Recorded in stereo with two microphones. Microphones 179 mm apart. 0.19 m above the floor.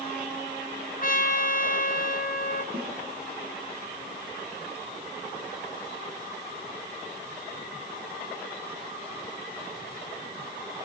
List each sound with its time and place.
1.0 s a trumpet: 50° left (ahead or behind), 1.1 m
2.7 s a snare drum: 60° right (ahead or behind), 4 m